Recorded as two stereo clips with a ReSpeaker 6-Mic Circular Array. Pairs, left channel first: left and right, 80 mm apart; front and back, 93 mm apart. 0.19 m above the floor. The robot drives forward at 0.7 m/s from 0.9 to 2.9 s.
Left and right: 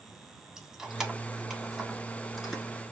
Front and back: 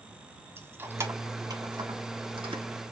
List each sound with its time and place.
0.6 s keys jangling: 160° right, 0.8 m; by 2.6 s 175° right, 1.7 m